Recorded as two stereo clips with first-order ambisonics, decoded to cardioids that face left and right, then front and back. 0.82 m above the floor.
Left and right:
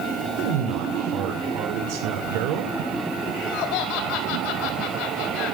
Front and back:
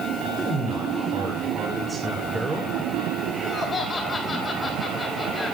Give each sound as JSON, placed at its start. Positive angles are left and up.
{"t": 0.4, "sound": "a man speaking", "azimuth_deg": -100, "distance_m": 2.0}
{"t": 3.3, "sound": "laughter", "azimuth_deg": 75, "distance_m": 3.5}